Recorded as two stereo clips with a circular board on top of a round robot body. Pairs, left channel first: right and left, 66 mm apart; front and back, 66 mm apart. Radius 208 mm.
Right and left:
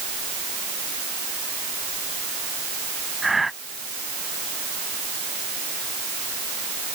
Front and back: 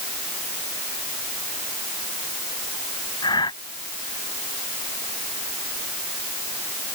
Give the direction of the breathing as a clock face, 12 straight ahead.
12 o'clock.